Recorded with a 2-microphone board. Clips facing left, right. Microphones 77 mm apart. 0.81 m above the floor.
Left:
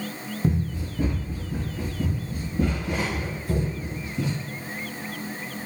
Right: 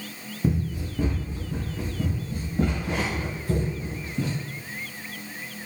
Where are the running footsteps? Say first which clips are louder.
Even; 10° right (ahead or behind), 1.4 m; by 4.3 s 30° right (ahead or behind), 5 m.